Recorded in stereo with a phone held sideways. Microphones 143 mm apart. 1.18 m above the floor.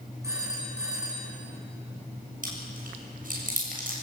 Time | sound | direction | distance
0.2 | a phone ringing | 20° right (ahead or behind) | 7 m
2.4 | chewing | 65° right (ahead or behind) | 7 m